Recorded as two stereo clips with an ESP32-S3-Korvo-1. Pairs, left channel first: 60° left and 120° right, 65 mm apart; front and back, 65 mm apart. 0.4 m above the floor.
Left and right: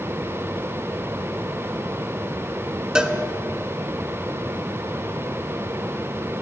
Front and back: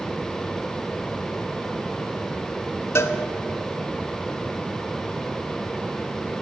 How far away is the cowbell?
About 0.5 m.